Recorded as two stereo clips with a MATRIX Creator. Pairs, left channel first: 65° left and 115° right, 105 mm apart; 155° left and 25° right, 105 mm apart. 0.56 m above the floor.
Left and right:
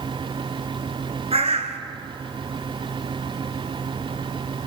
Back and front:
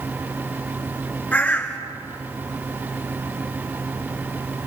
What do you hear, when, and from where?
1.3 s a bird: 125° right, 1.8 m